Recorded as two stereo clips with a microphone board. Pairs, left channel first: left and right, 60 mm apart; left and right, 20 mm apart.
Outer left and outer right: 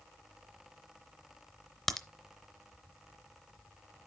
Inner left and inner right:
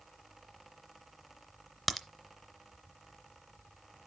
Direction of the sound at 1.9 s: 5° left (ahead or behind).